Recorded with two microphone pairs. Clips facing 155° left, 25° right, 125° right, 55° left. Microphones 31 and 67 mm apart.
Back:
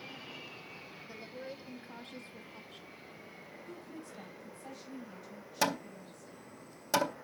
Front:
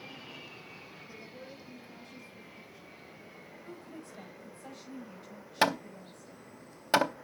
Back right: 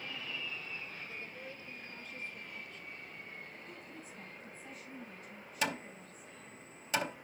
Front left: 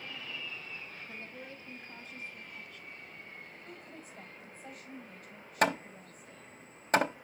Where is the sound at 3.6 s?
20° left, 4 m.